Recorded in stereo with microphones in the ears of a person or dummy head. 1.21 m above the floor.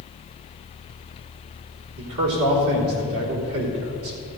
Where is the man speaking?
70° right (ahead or behind), 3.5 m.